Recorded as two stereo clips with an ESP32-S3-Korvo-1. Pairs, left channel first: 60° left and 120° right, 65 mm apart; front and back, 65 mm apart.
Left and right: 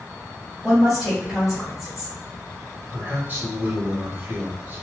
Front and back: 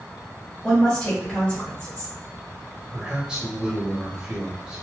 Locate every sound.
0.6 s a woman speaking: 35° right, 1.4 m
2.9 s a man speaking: 115° right, 1.0 m